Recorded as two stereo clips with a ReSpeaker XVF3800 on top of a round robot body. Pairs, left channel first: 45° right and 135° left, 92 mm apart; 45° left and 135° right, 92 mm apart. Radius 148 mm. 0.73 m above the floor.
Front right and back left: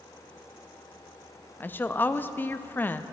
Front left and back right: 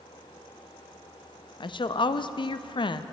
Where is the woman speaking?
20° left, 0.7 m.